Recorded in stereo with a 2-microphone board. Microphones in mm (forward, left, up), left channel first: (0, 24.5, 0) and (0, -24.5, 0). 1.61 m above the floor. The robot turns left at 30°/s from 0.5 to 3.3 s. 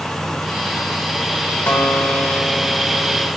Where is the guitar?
45° left, 1.4 m; by 3.3 s 5° right, 1.4 m.